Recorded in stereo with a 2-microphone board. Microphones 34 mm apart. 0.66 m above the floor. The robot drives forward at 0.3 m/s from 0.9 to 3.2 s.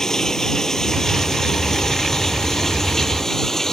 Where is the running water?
20° left (ahead or behind).